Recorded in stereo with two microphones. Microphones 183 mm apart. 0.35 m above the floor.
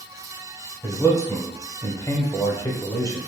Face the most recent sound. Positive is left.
turn(degrees=15)  # may be behind; listen again after turning